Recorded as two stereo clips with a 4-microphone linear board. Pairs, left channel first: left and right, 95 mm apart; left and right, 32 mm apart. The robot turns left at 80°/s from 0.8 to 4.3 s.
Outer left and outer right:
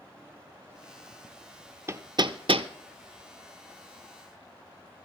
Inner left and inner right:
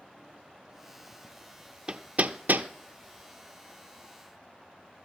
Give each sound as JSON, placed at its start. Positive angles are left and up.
{"t": 1.9, "sound": "hammering", "side_deg": -25, "distance_m": 0.7}